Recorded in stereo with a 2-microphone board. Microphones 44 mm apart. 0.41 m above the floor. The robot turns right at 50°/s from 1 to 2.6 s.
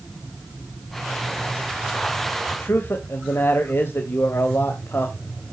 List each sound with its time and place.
2.5 s a man speaking: 55° left (ahead or behind), 2 m